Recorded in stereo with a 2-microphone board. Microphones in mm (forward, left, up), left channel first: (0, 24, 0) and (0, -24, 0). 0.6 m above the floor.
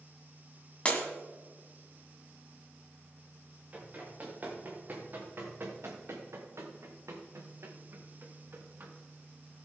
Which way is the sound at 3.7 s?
30° right (ahead or behind).